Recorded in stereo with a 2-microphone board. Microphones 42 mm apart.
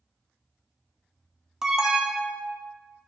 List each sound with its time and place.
1.6 s an alarm: 10° right (ahead or behind), 0.7 m